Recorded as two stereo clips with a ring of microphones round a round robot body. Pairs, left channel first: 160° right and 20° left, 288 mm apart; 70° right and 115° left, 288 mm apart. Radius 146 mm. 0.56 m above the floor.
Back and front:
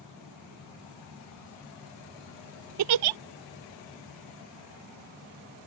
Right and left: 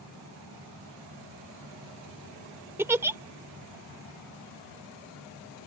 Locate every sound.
2.8 s a giggle: 30° left